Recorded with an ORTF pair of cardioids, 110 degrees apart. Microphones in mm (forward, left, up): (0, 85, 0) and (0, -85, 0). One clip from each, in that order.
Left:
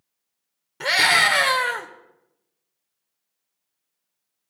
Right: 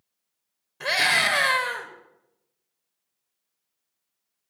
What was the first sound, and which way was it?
A scream, 40° left.